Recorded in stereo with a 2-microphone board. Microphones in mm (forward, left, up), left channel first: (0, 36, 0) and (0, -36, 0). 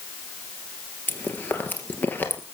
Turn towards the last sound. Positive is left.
turn(degrees=25)  # may be behind; listen again after turning